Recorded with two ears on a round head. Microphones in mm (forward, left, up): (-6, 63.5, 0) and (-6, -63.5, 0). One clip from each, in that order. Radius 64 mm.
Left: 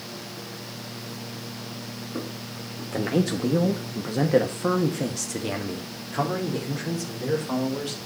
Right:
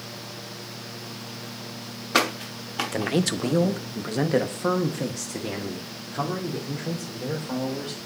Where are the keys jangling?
I don't hear keys jangling.